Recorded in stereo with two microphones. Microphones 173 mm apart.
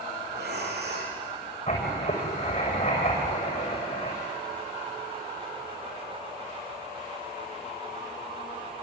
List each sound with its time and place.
0.3 s breathing: 75° right (ahead or behind), 4.5 m
1.7 s writing: 35° left (ahead or behind), 7 m